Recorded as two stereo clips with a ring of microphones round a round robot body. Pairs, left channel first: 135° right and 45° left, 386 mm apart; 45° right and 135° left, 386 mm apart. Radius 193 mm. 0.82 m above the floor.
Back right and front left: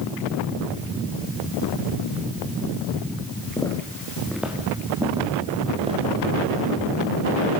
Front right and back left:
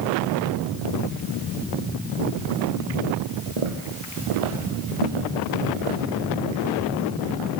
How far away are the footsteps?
About 4 m.